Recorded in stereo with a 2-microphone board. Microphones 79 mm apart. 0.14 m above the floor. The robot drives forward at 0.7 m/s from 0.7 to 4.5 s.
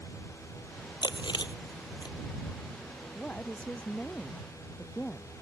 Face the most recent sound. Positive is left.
turn(degrees=15)  # may be behind; listen again after turning